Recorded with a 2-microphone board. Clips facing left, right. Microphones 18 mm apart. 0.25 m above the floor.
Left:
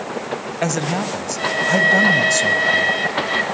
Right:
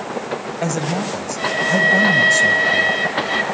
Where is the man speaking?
20° left (ahead or behind), 1.1 m.